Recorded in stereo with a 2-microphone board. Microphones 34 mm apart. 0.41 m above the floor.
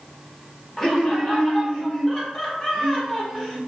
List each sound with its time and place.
0.8 s laughter: 15° left (ahead or behind), 0.9 m